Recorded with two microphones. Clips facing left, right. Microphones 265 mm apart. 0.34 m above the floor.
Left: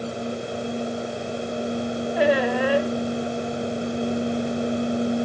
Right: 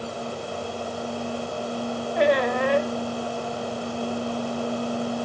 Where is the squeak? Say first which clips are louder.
Left 1 dB; 5° left (ahead or behind), 0.8 m.